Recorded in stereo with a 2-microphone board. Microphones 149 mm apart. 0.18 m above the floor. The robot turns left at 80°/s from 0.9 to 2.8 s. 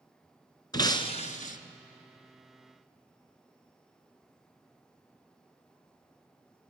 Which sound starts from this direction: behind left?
Breaking glass, at 0.7 s.